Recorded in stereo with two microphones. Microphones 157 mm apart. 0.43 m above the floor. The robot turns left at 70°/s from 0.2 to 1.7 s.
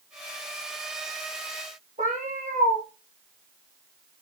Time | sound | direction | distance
2.0 | a cat meowing | 50° right (ahead or behind) | 2.5 m